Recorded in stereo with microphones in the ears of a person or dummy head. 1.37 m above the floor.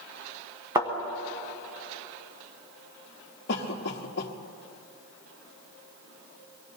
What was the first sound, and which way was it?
A thud, 15° right (ahead or behind).